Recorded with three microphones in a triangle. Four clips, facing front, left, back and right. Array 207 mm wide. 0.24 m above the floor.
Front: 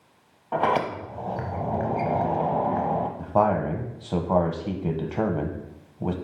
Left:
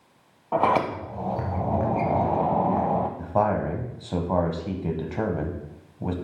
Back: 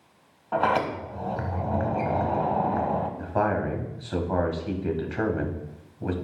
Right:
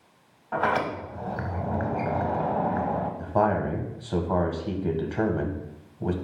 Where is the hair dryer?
No hair dryer in this recording.